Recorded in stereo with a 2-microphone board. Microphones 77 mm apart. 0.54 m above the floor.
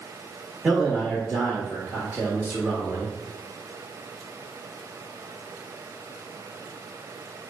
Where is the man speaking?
15° right (ahead or behind), 1.1 m.